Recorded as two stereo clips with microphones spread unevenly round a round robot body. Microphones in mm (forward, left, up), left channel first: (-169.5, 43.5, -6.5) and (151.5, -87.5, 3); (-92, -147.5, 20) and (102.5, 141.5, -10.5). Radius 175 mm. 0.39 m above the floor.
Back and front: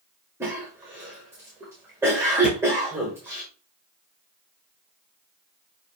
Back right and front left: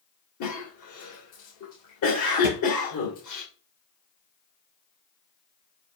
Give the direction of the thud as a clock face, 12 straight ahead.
4 o'clock.